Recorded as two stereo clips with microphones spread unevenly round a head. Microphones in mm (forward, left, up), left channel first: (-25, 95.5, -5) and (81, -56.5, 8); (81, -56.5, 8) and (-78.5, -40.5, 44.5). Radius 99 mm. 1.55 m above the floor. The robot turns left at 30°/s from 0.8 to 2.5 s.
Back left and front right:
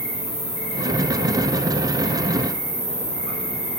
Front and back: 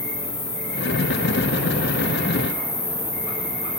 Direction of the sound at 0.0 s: 15° left.